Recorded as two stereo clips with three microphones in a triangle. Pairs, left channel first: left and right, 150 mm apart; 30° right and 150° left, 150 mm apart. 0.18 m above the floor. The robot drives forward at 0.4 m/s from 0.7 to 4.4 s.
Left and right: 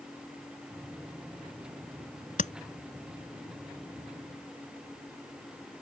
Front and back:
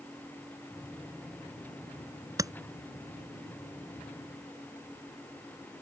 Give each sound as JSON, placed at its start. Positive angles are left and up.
{"t": 2.4, "sound": "tapping", "azimuth_deg": 90}